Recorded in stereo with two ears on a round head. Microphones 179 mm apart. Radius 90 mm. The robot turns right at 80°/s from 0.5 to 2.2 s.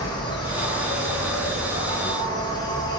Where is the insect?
20° left, 1.0 m; by 3.0 s 160° left, 1.0 m.